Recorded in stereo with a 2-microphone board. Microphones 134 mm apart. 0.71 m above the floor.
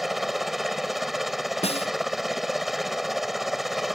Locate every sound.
0.0 s a helicopter: centre (ahead or behind)
1.6 s a snare drum: 55° left (ahead or behind)